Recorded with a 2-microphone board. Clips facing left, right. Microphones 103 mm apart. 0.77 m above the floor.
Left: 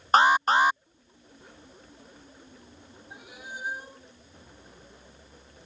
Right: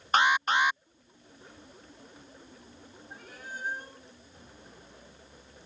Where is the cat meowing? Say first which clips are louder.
Left 1 dB; 10° left (ahead or behind).